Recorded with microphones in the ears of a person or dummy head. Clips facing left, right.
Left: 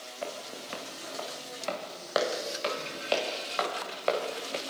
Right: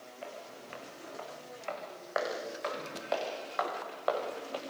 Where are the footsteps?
65° left (ahead or behind), 5 m; by 4.6 s 30° left (ahead or behind), 6 m.